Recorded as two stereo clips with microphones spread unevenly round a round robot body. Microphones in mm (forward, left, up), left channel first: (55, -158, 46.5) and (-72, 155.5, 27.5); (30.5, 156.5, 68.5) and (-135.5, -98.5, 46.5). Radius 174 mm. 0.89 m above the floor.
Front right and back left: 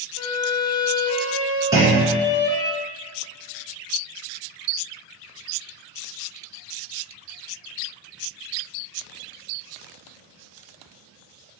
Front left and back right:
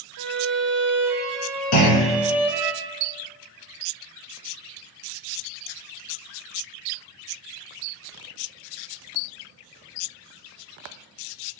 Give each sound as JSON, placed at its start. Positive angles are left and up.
{"t": 0.2, "sound": "a violin", "azimuth_deg": -85, "distance_m": 0.7}
{"t": 1.7, "sound": "a clunk", "azimuth_deg": 30, "distance_m": 2.0}